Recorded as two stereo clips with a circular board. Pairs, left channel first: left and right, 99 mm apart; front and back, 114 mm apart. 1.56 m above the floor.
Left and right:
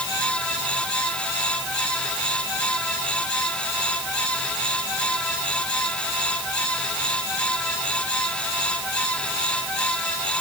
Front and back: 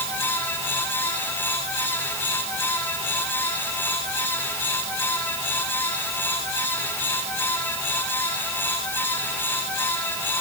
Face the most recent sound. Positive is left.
No sound to turn to.